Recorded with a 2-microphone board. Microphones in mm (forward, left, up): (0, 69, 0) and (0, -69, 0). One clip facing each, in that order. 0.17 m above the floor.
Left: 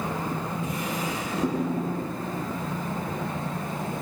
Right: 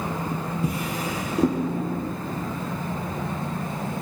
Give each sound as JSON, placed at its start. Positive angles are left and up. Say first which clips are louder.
{"t": 0.6, "sound": "a drawer", "louder": "right 2 dB", "side_deg": -30, "distance_m": 2.0}